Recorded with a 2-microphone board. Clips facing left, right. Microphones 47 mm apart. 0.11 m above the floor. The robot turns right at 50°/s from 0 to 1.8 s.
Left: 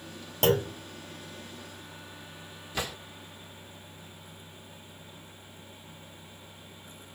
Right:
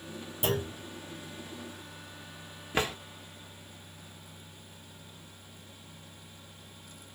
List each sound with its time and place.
0.4 s a clunk: 70° left (ahead or behind), 0.8 m; by 0.8 s 60° left (ahead or behind), 0.8 m
2.7 s a drawer: 40° right (ahead or behind), 0.9 m